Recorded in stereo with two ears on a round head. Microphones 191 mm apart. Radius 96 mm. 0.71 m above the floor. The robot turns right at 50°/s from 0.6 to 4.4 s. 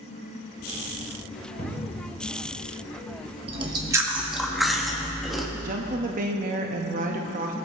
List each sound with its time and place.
1.6 s a cupboard door: 40° left (ahead or behind), 2.0 m; by 2.1 s 15° left (ahead or behind), 2.0 m
3.5 s chewing: 45° right, 1.0 m; by 5.5 s straight ahead, 1.0 m
5.6 s a woman speaking: 40° right (ahead or behind), 0.8 m